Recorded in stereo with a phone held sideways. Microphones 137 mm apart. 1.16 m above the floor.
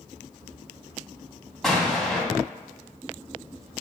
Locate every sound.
1.6 s an explosion: centre (ahead or behind), 1.8 m